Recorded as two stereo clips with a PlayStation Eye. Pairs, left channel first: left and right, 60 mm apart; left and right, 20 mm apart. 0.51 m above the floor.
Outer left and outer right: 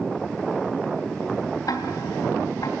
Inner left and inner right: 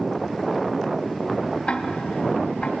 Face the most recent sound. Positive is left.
turn(degrees=75)  # may be behind; listen again after turning